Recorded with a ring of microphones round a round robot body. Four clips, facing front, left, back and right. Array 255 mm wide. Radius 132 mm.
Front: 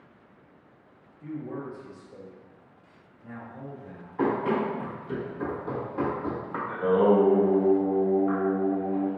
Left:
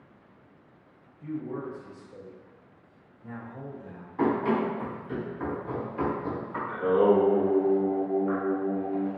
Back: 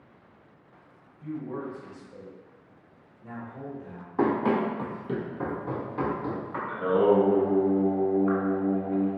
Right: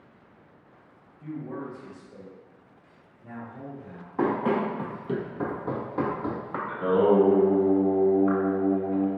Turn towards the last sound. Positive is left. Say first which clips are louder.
# even, front 1 dB
turn(degrees=-120)